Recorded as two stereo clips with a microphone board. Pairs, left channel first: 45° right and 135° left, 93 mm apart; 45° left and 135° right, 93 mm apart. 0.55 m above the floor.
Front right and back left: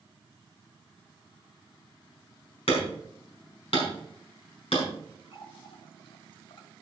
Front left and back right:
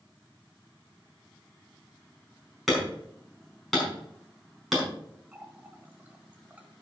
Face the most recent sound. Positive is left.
turn(degrees=-65)